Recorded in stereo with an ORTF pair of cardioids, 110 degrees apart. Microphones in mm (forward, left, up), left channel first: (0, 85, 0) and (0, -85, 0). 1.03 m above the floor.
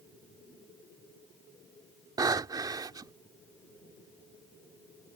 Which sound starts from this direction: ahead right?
Breathing, at 2.2 s.